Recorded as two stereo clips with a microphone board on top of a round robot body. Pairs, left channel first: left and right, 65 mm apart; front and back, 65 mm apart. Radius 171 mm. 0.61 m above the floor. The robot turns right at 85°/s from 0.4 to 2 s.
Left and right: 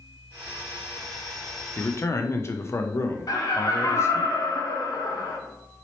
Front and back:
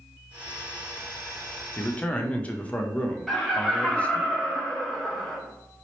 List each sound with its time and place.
1.8 s a man speaking: 45° left, 0.7 m; by 4.3 s 65° left, 0.7 m
3.3 s laughter: 85° left, 1.1 m